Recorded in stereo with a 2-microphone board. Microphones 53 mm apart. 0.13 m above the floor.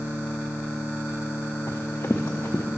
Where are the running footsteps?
55° left (ahead or behind), 0.7 m.